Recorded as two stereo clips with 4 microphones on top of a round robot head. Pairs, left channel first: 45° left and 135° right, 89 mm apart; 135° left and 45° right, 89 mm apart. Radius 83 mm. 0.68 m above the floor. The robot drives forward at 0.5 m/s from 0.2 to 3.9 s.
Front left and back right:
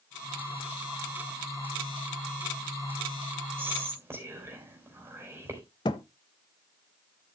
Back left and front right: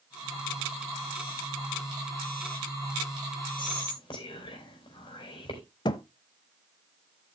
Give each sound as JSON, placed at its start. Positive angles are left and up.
{"t": 3.6, "sound": "whispering", "azimuth_deg": 160, "distance_m": 4.0}
{"t": 5.8, "sound": "a thud", "azimuth_deg": 90, "distance_m": 0.6}